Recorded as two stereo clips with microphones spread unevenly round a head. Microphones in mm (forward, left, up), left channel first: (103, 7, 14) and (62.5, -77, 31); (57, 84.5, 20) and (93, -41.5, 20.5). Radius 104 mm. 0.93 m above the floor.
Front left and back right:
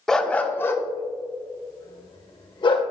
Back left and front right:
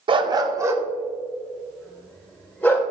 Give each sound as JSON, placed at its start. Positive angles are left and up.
{"t": 0.1, "sound": "a dog barking", "azimuth_deg": -25, "distance_m": 1.0}